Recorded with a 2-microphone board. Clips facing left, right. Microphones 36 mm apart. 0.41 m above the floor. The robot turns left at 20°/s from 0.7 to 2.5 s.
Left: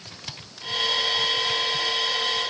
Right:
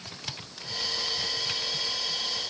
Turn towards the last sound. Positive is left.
No sound to turn to.